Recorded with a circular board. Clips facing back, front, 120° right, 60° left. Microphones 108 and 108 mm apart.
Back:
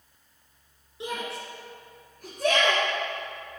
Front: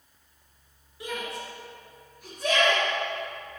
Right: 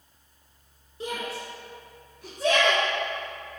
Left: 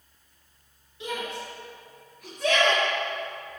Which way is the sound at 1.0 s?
130° right.